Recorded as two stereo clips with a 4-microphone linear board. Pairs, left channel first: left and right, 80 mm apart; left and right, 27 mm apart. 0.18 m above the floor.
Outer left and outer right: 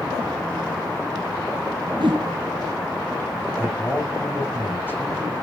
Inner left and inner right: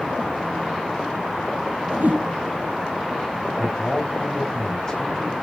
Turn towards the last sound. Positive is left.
turn(degrees=25)  # may be behind; listen again after turning